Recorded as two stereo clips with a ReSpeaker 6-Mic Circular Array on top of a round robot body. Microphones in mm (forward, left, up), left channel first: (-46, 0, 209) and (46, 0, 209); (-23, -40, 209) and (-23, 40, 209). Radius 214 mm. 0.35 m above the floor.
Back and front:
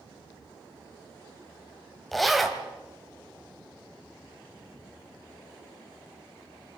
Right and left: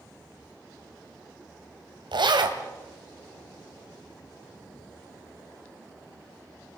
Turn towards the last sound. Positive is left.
turn(degrees=90)